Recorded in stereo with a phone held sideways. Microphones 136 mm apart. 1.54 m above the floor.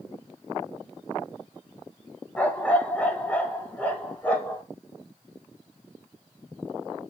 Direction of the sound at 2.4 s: 10° left (ahead or behind).